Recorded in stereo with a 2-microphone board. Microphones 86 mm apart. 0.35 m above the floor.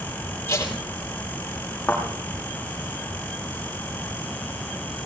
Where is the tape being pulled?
30° left (ahead or behind), 6.5 m.